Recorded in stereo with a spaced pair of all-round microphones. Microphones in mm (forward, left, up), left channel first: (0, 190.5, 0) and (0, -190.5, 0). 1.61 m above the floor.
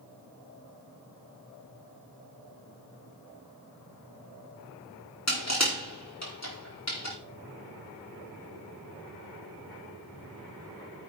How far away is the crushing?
About 3.5 m.